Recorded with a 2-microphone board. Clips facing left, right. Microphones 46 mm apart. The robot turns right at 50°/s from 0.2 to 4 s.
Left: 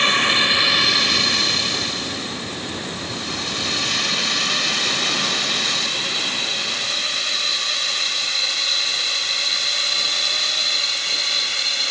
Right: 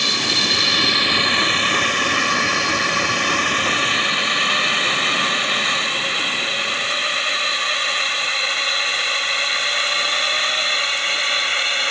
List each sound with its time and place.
0.0 s a drone: 30° left (ahead or behind); by 11.9 s 35° right (ahead or behind)